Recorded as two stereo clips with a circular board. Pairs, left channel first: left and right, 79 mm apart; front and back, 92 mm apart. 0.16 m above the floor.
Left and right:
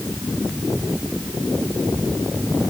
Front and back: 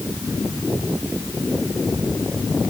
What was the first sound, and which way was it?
Only background noise.